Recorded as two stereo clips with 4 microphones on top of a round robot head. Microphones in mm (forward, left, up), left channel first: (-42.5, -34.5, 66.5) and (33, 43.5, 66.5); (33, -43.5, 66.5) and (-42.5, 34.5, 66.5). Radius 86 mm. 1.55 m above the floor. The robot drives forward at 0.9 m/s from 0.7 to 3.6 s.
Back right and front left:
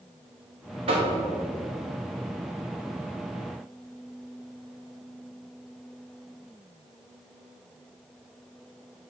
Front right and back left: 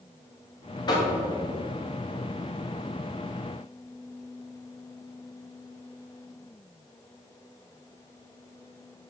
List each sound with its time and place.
0.9 s knocking: 10° left, 1.9 m